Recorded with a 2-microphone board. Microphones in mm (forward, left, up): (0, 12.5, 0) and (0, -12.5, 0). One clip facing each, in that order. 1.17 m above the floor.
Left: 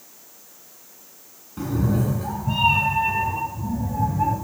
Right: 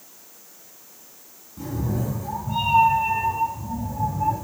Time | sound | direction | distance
1.6 | a cat meowing | 55° left (ahead or behind) | 4.5 m